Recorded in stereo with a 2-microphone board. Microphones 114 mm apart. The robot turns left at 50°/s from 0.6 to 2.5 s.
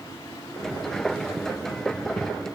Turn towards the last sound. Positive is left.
No sound to turn to.